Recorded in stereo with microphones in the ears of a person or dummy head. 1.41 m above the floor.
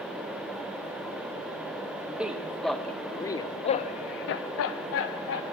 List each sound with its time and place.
2.1 s a man speaking: 10° right (ahead or behind), 1.2 m; by 5.4 s 65° left (ahead or behind), 1.0 m